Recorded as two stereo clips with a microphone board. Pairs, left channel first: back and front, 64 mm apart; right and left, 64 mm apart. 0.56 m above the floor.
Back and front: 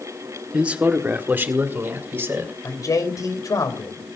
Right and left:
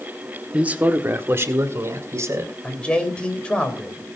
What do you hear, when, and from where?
0.5 s a man speaking: 50° left, 1.0 m; by 2.5 s 55° left, 2.5 m
2.6 s a man speaking: 160° right, 3 m